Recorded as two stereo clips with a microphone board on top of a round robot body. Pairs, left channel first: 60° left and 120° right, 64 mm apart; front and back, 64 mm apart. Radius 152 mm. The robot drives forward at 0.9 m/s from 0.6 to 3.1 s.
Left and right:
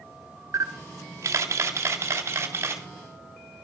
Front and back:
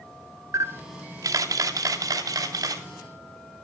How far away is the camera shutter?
About 1.0 m.